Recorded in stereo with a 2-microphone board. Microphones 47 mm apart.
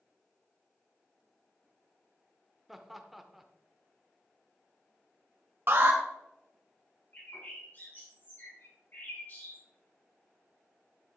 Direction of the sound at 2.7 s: 5° right (ahead or behind).